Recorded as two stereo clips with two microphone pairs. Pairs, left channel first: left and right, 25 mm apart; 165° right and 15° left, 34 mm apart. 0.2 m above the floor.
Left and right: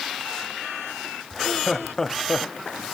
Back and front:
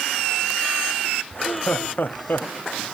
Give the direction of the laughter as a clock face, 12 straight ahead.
7 o'clock.